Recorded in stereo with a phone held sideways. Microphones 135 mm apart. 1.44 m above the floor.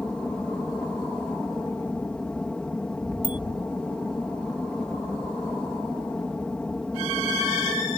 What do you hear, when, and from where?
0.0 s an aircraft: 5° left (ahead or behind)
3.2 s a bicycle bell: 40° left (ahead or behind)